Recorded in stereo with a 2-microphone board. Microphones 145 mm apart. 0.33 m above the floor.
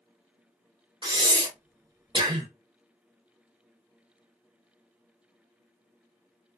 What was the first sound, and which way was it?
Breathing, 35° right (ahead or behind).